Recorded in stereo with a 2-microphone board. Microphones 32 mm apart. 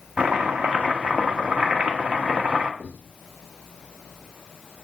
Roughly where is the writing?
Right.